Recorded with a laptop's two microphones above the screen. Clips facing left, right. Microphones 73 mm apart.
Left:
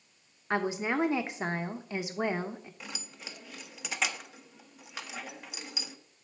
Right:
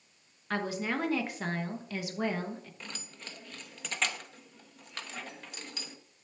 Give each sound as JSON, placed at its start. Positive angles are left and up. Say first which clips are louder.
{"t": 0.5, "sound": "a woman speaking", "louder": "left 3 dB", "side_deg": 20, "distance_m": 1.1}
{"t": 2.8, "sound": "keys jangling", "louder": "left 1 dB", "side_deg": 10, "distance_m": 1.0}